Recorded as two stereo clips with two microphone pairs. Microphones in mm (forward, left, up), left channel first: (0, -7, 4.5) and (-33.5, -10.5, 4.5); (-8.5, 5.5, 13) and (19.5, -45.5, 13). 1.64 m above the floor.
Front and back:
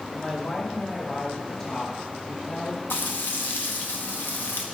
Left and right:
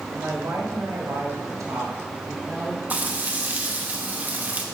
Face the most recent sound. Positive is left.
turn(degrees=0)